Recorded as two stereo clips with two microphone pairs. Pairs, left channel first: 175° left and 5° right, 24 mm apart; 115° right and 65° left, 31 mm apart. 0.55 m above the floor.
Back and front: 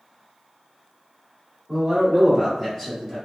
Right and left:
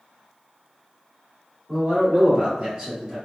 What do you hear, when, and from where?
1.7 s a man speaking: 50° left, 1.6 m; by 3.2 s 135° left, 1.2 m